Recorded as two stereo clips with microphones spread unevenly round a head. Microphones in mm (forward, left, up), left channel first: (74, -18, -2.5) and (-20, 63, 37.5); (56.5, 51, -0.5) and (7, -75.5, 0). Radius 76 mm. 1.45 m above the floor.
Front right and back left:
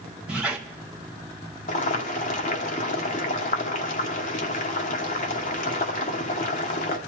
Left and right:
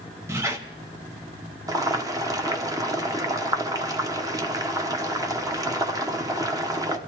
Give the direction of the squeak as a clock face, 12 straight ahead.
6 o'clock.